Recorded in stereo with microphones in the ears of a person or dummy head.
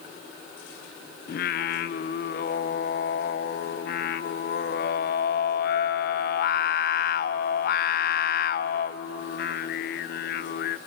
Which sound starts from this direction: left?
Singing, at 1.3 s.